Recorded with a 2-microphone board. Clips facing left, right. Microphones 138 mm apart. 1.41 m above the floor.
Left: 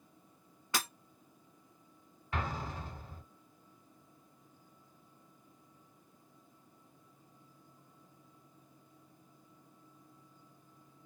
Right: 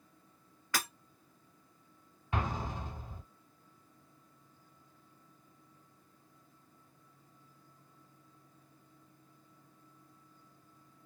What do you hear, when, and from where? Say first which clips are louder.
0.7 s breaking glass: even; 25° left (ahead or behind), 1.4 m
2.3 s an explosion: right 2 dB; 20° right (ahead or behind), 1.2 m